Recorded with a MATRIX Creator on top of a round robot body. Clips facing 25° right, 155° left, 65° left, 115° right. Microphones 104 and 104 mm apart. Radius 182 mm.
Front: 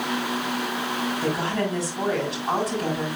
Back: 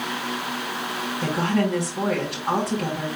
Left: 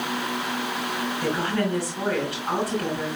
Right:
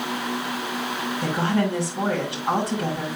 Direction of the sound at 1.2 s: Straight behind.